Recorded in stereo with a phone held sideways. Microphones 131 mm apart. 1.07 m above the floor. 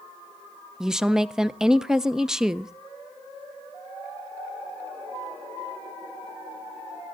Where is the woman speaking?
5° right (ahead or behind), 0.6 m.